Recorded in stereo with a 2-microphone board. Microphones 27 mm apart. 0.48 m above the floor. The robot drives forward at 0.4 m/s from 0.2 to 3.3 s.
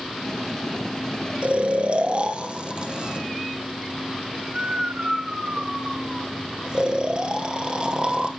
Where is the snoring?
50° right (ahead or behind), 1.1 m; by 8.3 s 30° right (ahead or behind), 1.6 m.